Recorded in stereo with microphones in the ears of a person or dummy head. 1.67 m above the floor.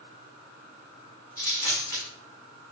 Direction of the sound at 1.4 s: 25° left (ahead or behind).